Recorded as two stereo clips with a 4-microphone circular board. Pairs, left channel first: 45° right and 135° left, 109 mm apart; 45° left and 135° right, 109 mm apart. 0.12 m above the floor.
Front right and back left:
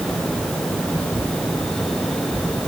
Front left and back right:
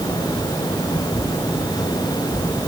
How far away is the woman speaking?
No woman speaking in this recording.